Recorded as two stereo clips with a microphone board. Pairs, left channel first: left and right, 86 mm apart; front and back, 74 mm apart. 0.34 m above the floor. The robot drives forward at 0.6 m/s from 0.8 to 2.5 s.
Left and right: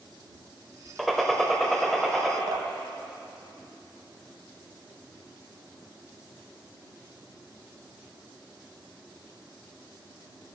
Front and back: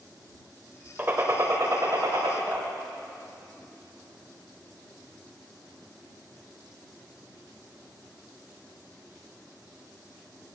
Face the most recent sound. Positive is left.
turn(degrees=-110)